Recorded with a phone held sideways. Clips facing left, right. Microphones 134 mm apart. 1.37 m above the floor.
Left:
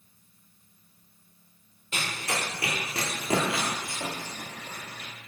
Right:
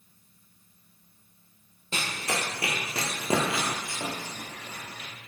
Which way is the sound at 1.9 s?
35° right (ahead or behind).